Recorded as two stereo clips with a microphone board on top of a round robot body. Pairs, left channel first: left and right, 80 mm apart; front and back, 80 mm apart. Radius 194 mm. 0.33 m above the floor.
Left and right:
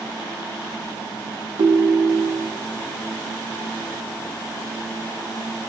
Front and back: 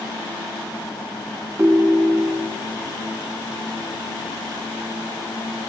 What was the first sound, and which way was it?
A ringtone, 115° right.